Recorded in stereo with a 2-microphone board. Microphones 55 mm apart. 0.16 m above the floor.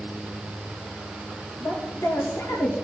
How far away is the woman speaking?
About 3 m.